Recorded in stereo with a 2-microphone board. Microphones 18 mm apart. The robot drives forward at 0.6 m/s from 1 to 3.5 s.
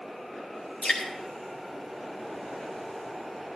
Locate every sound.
0.8 s dripping: 85° left, 4.5 m; by 1.1 s 80° left, 4.5 m